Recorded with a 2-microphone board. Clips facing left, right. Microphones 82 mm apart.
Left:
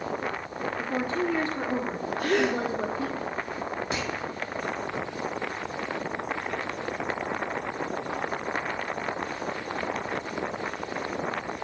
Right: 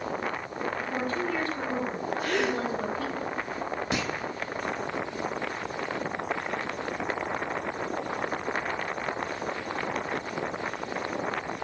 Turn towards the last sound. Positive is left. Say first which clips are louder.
# right 1 dB
turn(degrees=-65)  # may be behind; listen again after turning